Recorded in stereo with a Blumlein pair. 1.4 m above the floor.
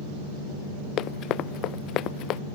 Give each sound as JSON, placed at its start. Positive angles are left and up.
{"t": 1.0, "sound": "running footsteps", "azimuth_deg": 35}